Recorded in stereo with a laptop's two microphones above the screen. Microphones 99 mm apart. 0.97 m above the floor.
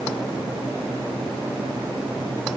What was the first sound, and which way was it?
Only background noise.